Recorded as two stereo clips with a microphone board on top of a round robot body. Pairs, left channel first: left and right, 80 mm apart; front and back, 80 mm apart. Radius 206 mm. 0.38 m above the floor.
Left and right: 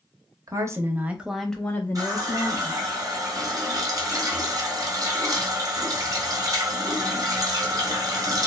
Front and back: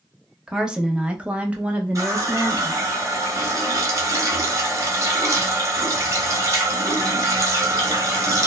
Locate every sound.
0.5 s a woman speaking: 100° right, 0.9 m; by 3.0 s 105° left, 1.1 m
1.9 s a running tap: 130° right, 1.0 m